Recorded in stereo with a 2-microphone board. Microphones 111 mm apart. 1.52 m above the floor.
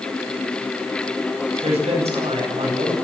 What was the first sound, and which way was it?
A man speaking, 80° right.